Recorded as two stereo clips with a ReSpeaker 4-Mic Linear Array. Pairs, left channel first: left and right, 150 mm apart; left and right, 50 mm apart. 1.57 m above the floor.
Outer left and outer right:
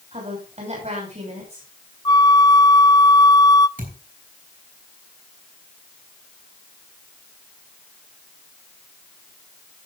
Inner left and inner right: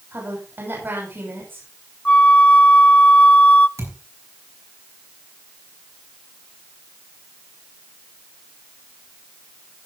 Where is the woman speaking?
50° right (ahead or behind), 6.5 m.